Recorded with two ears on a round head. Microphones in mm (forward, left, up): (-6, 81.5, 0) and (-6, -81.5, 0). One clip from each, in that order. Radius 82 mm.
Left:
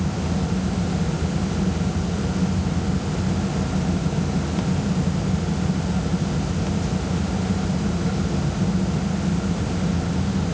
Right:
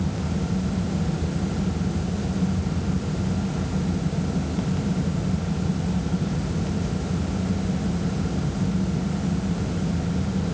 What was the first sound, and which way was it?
Only background noise.